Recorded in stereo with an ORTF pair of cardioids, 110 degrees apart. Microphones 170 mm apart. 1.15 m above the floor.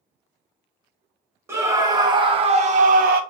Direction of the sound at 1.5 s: 15° right.